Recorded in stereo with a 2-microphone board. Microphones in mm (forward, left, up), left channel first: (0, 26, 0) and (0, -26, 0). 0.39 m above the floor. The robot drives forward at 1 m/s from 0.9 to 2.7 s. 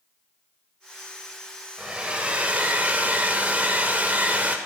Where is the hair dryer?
20° right (ahead or behind), 1.6 m; by 4.6 s 30° right (ahead or behind), 1.1 m.